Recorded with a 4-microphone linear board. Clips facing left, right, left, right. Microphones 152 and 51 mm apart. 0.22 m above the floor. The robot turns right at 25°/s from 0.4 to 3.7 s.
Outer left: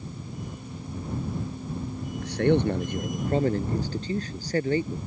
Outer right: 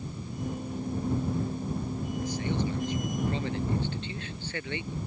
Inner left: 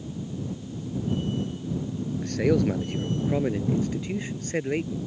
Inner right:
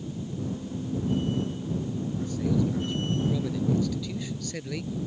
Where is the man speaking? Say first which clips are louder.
Outer left 11 dB, inner left 5 dB; 100° left; by 5.0 s 140° left.